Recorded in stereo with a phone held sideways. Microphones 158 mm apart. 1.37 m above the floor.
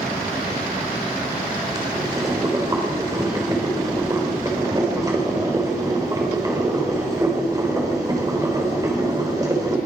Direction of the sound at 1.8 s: 25° right (ahead or behind).